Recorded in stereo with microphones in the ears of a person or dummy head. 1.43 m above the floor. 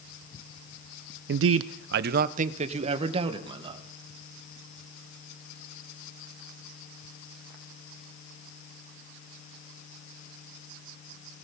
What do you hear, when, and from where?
1.3 s a man speaking: 60° right (ahead or behind), 0.5 m; by 3.8 s 20° right (ahead or behind), 2 m